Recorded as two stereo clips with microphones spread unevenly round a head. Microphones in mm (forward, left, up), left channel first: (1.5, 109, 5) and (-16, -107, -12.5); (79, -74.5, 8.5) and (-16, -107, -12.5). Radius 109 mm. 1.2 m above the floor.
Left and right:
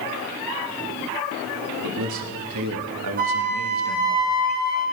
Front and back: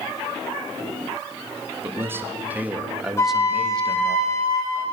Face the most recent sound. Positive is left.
turn(degrees=-40)